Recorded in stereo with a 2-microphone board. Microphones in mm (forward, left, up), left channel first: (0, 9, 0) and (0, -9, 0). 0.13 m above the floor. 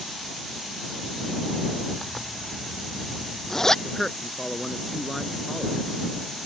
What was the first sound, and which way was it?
A zipper, 25° left (ahead or behind).